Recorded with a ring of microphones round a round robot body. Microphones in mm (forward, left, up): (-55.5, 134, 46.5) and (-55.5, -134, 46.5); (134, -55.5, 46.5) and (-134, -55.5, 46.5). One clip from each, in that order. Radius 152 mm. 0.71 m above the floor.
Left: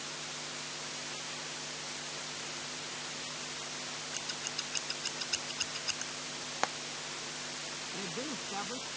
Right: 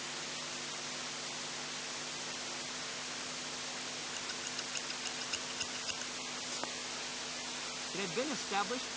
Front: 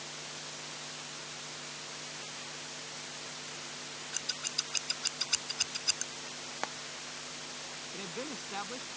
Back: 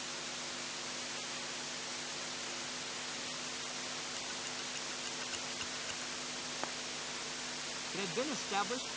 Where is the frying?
60° left.